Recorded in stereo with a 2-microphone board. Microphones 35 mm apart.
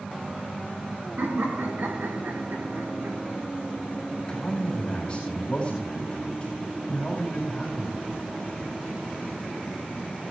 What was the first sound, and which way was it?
Laughter, 80° right.